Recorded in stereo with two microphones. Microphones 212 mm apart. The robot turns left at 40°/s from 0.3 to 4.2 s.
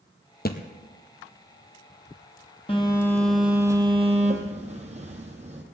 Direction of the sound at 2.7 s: 25° left.